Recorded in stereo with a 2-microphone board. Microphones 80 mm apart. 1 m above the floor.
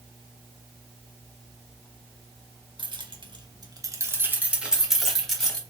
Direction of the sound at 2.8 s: 75° right (ahead or behind).